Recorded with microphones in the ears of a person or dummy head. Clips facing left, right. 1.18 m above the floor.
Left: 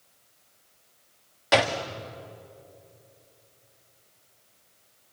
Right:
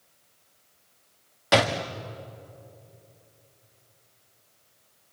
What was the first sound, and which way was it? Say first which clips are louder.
A door slam: right 1 dB; 5° right (ahead or behind).